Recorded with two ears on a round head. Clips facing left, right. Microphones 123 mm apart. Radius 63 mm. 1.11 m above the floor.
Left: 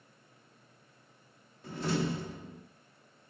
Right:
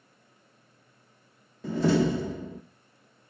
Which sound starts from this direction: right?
A door slam, at 1.6 s.